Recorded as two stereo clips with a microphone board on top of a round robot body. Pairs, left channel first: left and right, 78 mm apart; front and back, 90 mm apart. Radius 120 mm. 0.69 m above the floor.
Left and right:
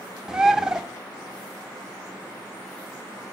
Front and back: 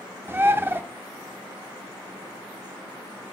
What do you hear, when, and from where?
0.3 s a bird: 160° right, 0.7 m